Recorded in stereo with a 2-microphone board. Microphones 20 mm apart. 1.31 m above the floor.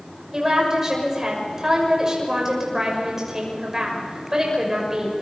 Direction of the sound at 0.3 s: 25° right (ahead or behind).